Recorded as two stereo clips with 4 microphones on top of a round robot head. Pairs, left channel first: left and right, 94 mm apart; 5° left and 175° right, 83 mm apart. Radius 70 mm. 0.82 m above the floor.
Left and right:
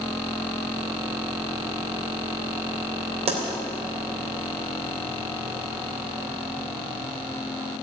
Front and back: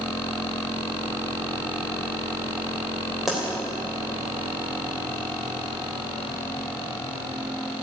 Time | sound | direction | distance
3.3 | a pop | 85° right | 3.5 m